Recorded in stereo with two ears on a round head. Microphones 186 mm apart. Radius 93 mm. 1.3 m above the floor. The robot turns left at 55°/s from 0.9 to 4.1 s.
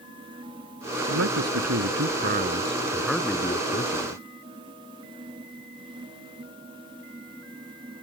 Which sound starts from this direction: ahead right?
A man speaking, at 1.1 s.